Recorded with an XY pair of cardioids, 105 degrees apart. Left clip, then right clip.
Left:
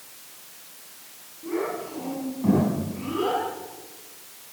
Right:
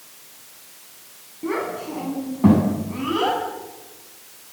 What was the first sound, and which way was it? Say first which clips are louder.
A child speaking: right 3 dB; 70° right.